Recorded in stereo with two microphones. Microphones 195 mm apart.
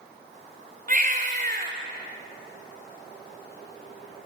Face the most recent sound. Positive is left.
turn(degrees=-45)  # may be behind; listen again after turning